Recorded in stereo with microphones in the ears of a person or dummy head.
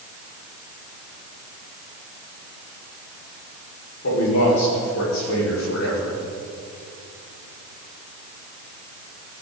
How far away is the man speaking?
About 5 m.